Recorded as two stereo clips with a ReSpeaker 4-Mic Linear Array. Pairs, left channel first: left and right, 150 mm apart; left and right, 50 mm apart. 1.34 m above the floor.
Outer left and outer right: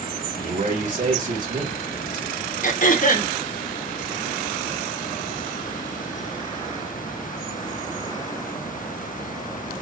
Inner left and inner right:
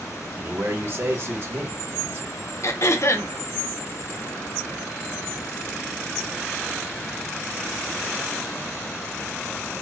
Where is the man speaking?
55° right (ahead or behind), 2.5 m.